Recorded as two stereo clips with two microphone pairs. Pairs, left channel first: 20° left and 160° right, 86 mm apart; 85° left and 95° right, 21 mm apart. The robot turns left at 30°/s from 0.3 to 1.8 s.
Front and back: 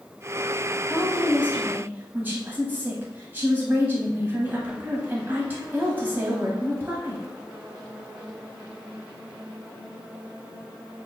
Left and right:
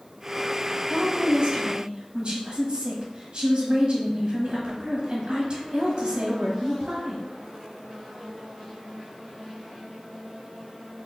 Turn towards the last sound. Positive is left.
turn(degrees=-105)